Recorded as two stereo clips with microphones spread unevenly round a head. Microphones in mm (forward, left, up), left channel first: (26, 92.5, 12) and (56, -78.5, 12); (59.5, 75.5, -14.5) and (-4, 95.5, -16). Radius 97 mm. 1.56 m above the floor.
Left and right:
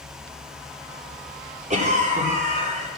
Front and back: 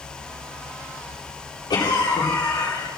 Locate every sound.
1.7 s a cough: 30° right, 4 m